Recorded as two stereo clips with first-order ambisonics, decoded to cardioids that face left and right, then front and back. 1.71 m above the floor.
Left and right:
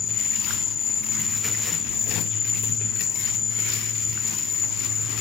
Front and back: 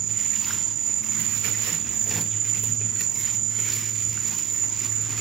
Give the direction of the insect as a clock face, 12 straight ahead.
7 o'clock.